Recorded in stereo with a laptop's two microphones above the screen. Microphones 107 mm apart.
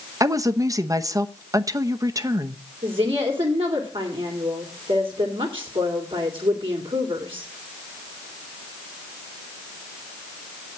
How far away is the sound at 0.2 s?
About 0.8 m.